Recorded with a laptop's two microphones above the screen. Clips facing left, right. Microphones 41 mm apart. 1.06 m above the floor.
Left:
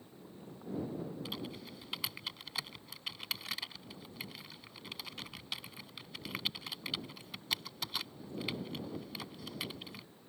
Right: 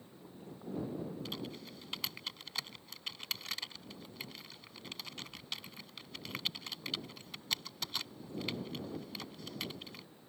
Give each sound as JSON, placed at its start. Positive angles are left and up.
{"t": 1.2, "sound": "typing on a keyboard", "side_deg": 5}